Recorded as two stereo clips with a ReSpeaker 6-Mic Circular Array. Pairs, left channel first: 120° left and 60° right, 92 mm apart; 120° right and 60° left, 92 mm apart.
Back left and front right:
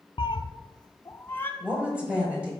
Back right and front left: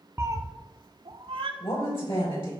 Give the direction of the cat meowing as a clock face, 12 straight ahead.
8 o'clock.